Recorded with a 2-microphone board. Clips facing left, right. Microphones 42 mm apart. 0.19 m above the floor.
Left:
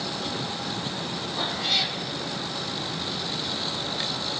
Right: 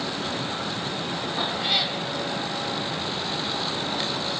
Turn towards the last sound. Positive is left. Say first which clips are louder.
# right 1 dB
turn(degrees=-15)  # may be behind; listen again after turning